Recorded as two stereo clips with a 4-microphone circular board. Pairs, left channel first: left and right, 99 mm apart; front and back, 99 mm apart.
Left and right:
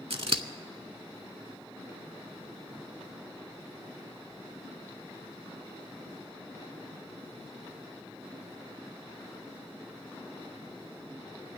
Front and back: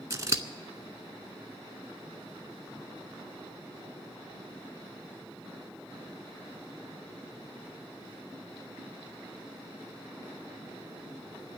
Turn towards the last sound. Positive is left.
turn(degrees=-120)